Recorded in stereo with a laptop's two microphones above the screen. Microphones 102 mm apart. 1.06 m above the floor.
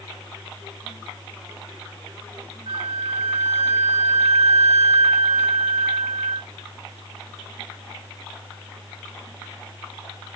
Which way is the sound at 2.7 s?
85° right.